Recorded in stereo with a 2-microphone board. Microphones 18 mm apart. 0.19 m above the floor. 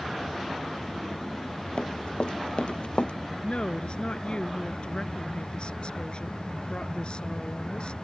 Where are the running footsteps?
75° left (ahead or behind); by 3.1 s 85° left.